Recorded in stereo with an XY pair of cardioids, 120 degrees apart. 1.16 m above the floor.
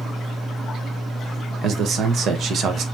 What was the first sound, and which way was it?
A man speaking, 55° right.